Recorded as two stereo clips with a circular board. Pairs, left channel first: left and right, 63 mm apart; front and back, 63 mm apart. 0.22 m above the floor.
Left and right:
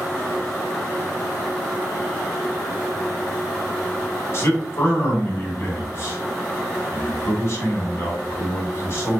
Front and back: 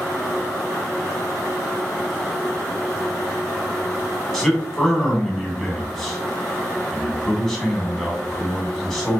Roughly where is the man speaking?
Left.